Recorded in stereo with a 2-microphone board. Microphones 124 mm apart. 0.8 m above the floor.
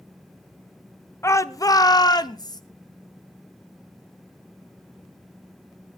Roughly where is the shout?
Left.